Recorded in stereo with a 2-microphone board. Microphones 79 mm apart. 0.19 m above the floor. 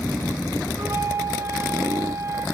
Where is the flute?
35° right (ahead or behind), 1.2 m.